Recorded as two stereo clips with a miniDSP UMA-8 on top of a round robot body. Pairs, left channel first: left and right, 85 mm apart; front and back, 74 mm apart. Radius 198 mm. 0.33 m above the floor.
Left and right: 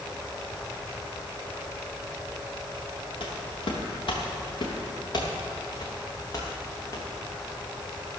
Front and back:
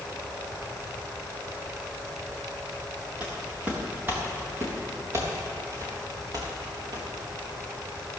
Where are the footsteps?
105° left, 3.5 m; by 7.1 s 145° left, 3.5 m.